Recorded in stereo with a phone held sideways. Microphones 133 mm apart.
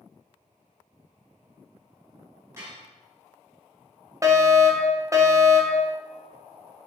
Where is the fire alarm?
25° right (ahead or behind), 1.5 m.